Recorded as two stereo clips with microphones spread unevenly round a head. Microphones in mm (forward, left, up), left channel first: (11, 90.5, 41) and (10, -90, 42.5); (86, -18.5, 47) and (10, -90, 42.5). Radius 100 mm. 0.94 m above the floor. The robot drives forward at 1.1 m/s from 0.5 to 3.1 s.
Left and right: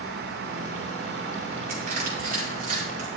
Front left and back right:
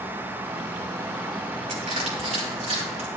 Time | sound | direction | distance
1.7 | crushing | 130° right | 6 m